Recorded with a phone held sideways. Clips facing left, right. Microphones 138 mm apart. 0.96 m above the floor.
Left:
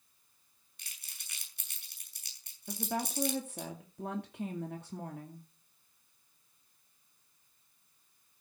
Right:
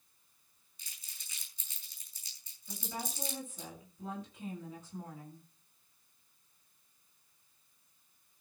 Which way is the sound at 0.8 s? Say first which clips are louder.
Left 2 dB; 70° left (ahead or behind).